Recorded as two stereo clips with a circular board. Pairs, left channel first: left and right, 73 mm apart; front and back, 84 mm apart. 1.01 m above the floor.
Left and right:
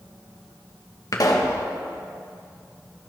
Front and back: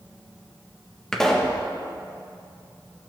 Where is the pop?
80° left, 1.4 m.